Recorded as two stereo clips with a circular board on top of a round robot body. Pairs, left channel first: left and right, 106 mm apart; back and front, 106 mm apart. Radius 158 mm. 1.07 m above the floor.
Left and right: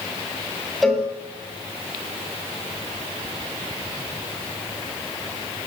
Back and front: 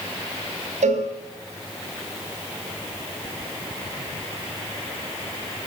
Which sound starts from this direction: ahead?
A cowbell, at 0.8 s.